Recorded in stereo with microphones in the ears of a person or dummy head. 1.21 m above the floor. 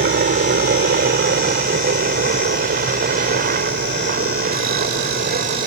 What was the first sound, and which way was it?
A helicopter, 55° right (ahead or behind).